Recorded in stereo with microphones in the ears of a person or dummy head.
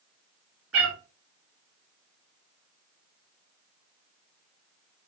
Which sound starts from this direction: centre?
A cat meowing, at 0.7 s.